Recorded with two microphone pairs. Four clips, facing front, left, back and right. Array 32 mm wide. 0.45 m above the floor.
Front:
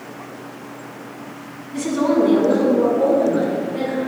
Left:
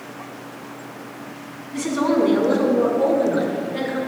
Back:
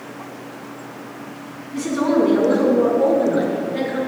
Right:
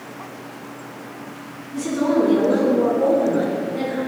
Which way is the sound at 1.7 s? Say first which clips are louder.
Even, even; 60° left.